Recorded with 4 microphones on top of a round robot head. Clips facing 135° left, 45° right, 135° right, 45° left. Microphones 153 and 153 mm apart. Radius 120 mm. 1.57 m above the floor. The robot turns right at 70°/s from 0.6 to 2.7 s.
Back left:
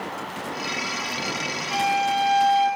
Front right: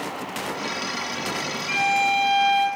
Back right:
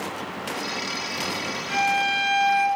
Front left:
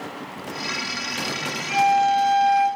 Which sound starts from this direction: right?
A violin, at 1.7 s.